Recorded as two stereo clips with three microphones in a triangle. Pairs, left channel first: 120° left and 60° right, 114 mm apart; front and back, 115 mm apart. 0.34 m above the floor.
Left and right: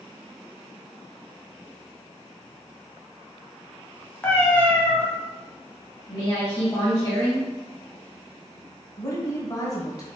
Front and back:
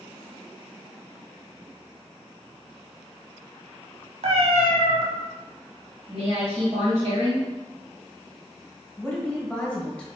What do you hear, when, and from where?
4.2 s a cat meowing: 170° right, 1.0 m
6.1 s a woman speaking: 165° left, 2.0 m
9.0 s a woman speaking: 75° left, 1.3 m